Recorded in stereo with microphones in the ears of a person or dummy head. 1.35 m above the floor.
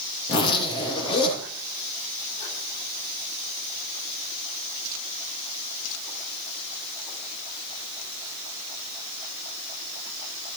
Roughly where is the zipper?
Left.